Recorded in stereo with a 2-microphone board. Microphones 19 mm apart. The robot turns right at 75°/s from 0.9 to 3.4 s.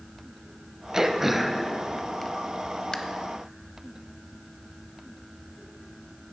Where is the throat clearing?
30° right (ahead or behind), 0.7 m; by 3.0 s 35° left (ahead or behind), 0.7 m.